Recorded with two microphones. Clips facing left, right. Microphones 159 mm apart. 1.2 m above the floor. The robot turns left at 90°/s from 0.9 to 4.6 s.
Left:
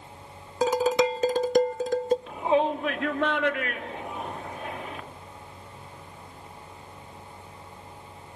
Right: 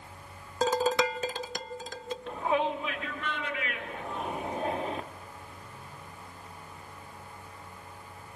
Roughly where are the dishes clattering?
Behind.